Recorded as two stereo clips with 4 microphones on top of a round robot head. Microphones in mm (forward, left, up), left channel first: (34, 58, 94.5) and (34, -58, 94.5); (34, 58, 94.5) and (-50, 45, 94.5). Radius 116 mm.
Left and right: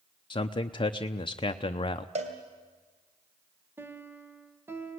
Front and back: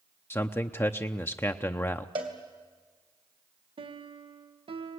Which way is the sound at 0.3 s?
60° left.